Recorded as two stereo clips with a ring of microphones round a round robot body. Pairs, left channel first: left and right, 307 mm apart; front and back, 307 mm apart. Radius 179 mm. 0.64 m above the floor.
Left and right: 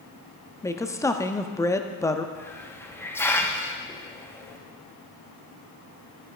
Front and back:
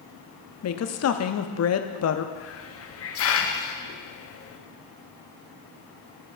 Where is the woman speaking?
10° left, 0.9 m.